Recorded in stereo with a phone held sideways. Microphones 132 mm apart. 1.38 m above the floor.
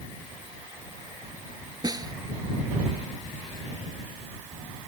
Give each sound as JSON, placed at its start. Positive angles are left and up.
{"t": 1.8, "sound": "a snare drum", "side_deg": -30}